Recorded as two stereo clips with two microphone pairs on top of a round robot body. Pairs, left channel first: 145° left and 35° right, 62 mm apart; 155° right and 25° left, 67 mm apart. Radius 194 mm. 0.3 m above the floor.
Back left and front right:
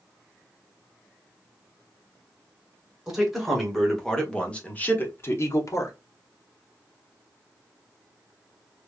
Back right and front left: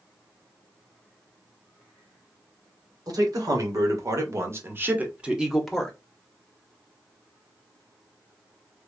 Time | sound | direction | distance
3.1 | a man speaking | 45° left | 2.5 m